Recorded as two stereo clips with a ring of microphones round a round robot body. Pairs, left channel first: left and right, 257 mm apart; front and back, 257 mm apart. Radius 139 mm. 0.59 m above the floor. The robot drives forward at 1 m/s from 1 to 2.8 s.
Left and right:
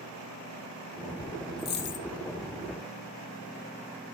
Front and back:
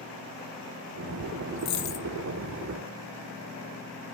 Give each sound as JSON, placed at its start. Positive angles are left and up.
{"t": 1.6, "sound": "a dropped coin", "azimuth_deg": 35, "distance_m": 1.0}